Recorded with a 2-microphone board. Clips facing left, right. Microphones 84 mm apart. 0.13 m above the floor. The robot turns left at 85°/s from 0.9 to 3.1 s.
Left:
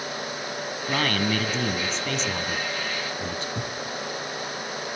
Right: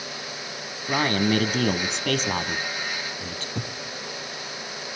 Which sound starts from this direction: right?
A thud, at 3.5 s.